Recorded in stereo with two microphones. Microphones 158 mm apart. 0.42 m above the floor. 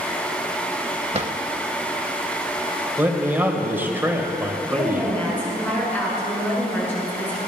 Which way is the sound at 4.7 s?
10° left (ahead or behind).